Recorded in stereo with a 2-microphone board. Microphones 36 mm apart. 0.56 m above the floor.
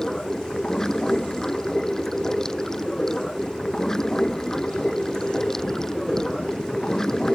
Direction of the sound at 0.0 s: 15° left (ahead or behind).